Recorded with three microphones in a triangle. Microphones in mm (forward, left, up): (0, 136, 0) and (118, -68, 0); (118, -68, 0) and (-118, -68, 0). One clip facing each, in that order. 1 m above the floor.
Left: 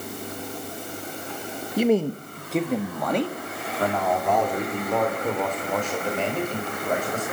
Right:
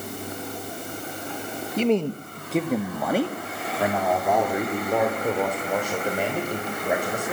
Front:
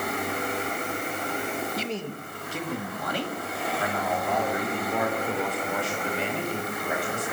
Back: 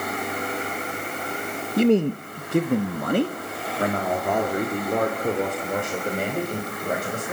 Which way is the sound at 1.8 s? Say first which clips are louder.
Left 1 dB, back 14 dB; 165° right.